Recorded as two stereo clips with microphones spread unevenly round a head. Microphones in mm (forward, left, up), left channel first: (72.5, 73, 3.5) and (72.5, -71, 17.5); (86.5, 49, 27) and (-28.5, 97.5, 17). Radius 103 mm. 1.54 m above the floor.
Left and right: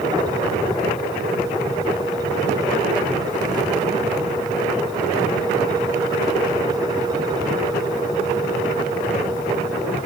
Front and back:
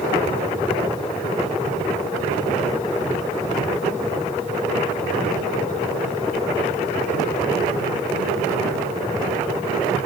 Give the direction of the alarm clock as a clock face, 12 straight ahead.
I don't hear an alarm clock.